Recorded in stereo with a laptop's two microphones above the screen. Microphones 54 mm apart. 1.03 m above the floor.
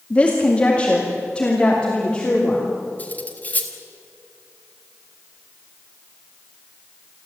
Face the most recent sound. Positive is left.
turn(degrees=30)  # may be behind; listen again after turning